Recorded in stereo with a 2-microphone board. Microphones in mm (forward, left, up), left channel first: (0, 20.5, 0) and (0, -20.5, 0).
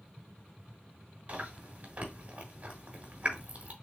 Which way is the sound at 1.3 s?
40° right (ahead or behind).